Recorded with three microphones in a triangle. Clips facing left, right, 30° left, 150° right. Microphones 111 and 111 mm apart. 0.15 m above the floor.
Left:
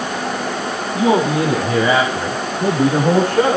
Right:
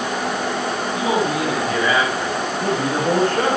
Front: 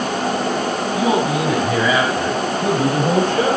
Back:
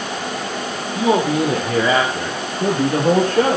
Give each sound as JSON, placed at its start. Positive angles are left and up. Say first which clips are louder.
{"t": 0.9, "sound": "a man speaking", "louder": "left 6 dB, back 3 dB", "azimuth_deg": 150, "distance_m": 5.5}